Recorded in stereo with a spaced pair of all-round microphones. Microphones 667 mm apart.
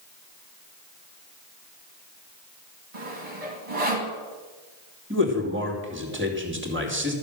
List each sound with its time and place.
2.9 s sawing: 50° right (ahead or behind), 2.5 m
5.1 s a man speaking: 15° right (ahead or behind), 2.5 m